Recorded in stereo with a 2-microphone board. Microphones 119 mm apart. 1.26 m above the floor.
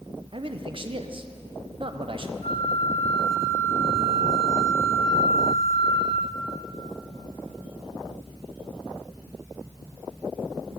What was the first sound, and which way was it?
A man speaking, 45° right (ahead or behind).